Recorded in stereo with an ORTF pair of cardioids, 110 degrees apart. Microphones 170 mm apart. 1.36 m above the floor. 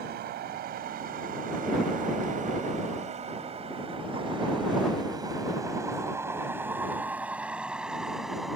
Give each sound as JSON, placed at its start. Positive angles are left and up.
{"t": 0.0, "sound": "a vehicle", "azimuth_deg": -65}